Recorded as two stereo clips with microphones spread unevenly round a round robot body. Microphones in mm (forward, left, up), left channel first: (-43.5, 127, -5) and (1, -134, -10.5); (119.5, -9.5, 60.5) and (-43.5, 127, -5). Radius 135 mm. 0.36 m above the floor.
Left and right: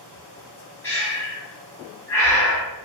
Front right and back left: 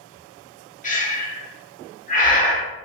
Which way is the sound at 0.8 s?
20° left.